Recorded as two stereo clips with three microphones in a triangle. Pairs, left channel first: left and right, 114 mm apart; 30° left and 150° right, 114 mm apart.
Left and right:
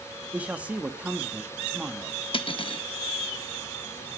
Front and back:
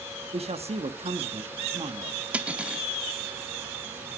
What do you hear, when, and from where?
0.3 s a man speaking: 170° right, 1.3 m
2.3 s cutlery clinking: 130° left, 0.7 m